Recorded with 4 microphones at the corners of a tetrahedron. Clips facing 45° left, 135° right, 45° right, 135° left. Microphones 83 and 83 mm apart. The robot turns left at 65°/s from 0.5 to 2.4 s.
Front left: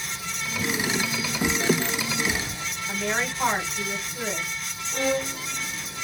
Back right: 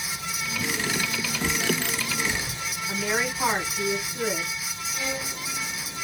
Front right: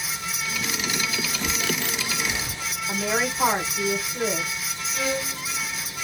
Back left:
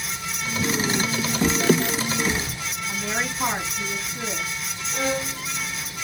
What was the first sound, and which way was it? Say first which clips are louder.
A bird: front left 5 dB, back left 8 dB; 130° left.